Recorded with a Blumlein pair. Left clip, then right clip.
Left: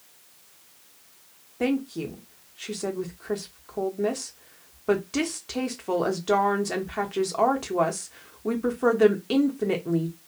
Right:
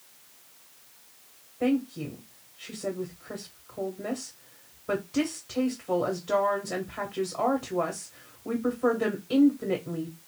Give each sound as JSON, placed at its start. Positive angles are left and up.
{"t": 1.6, "sound": "a woman speaking", "azimuth_deg": 40, "distance_m": 1.0}